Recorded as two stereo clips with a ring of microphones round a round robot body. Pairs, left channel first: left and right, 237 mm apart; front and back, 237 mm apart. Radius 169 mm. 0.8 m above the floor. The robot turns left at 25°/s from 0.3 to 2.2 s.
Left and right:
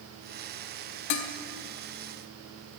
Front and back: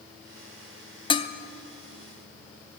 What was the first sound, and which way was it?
Dishes clattering, 75° left.